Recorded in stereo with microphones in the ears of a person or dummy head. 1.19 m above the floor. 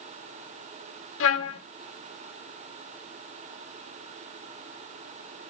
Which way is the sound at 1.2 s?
70° left (ahead or behind).